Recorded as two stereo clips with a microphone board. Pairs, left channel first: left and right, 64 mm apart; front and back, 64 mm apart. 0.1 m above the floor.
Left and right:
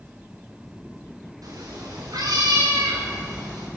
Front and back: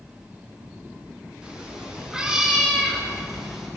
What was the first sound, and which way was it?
A cat meowing, 105° right.